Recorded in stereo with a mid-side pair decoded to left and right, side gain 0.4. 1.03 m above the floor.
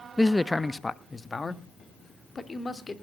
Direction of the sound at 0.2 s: 5° left.